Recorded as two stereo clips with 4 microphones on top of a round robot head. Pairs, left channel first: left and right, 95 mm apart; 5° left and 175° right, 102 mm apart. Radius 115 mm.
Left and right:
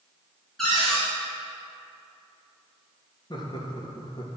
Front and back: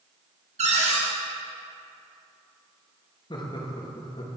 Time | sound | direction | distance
0.6 | a cupboard door | 175° left | 2.5 m
3.3 | laughter | 50° left | 2 m